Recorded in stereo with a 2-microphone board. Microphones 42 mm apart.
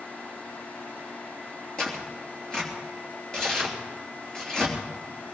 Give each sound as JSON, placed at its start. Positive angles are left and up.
{"t": 1.8, "sound": "tearing paper", "side_deg": 20, "distance_m": 3.5}